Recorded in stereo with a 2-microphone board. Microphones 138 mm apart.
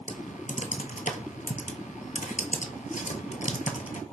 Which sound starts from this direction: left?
Typing on a keyboard, at 0.1 s.